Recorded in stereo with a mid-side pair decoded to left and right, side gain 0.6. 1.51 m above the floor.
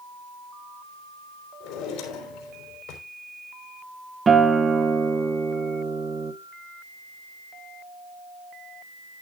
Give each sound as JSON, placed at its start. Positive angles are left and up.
{"t": 1.6, "sound": "a drawer", "azimuth_deg": 70, "distance_m": 4.0}
{"t": 4.3, "sound": "a guitar", "azimuth_deg": -25, "distance_m": 1.3}